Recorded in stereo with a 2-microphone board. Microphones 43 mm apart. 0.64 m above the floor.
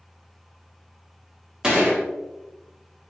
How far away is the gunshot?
About 1.2 m.